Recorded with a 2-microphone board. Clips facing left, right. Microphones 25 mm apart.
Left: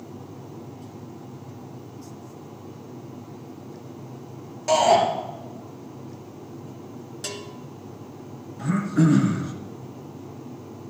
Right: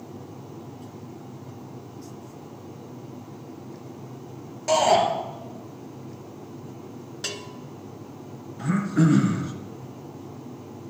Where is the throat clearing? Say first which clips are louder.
Left 1 dB; 10° right (ahead or behind), 1.6 m.